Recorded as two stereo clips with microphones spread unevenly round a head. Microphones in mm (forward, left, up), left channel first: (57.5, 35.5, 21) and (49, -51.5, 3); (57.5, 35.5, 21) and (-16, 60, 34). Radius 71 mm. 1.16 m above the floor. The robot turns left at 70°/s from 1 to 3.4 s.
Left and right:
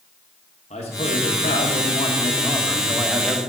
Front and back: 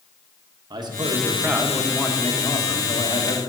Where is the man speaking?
130° left, 1.1 m; by 3.5 s 35° right, 1.1 m.